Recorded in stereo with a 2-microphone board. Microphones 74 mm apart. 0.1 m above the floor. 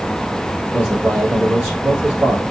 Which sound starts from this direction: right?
A man speaking, at 0.7 s.